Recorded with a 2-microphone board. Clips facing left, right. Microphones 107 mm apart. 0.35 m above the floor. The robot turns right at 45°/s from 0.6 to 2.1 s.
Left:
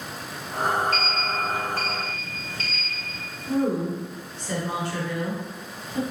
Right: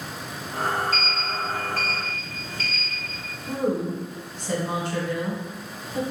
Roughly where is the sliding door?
Behind left.